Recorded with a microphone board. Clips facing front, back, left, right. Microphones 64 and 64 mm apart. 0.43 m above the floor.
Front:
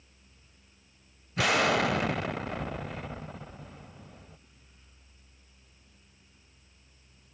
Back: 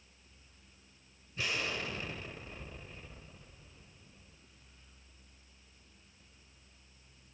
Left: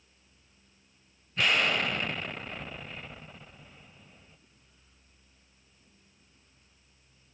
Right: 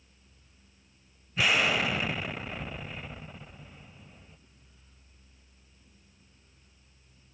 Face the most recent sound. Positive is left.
turn(degrees=-5)